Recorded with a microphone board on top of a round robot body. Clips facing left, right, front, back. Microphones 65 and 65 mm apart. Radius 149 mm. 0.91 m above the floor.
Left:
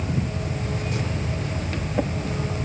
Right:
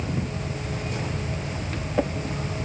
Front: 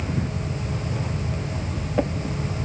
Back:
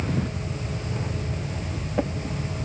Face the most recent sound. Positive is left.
No sound to turn to.